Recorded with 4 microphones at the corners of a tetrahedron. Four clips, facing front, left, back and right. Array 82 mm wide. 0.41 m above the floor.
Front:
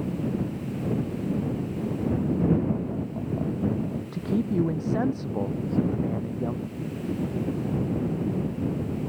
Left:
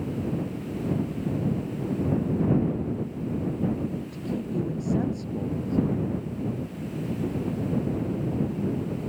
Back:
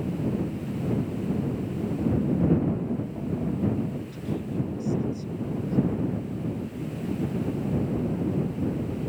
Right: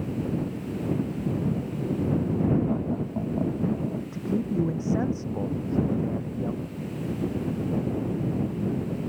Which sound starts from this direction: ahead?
A man speaking, at 4.1 s.